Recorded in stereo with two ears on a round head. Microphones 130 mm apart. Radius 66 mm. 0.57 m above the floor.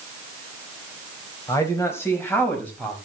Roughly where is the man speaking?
Left.